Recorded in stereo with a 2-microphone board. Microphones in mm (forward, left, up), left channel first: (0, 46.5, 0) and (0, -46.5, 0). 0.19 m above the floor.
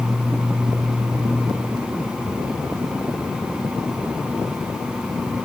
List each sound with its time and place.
Only background noise.